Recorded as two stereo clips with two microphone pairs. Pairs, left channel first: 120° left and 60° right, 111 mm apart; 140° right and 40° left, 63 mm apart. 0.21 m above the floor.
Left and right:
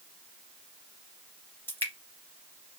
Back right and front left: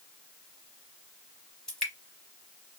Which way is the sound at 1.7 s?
150° left.